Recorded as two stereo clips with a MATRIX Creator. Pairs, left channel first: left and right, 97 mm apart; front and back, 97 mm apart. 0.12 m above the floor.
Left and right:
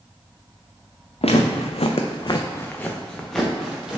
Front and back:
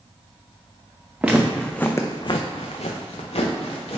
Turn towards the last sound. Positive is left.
turn(degrees=-5)